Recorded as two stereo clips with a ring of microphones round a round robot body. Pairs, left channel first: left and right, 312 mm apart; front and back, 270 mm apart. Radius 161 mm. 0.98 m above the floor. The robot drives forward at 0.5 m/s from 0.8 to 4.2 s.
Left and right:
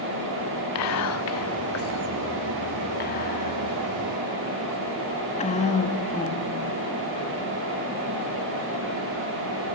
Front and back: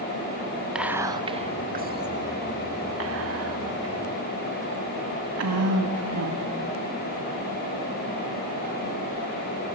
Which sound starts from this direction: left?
Whispering, at 0.8 s.